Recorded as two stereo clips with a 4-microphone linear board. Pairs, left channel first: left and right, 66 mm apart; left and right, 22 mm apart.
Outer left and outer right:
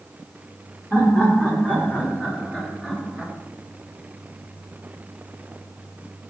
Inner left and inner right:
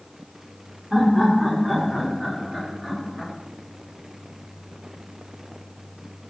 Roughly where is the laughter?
Left.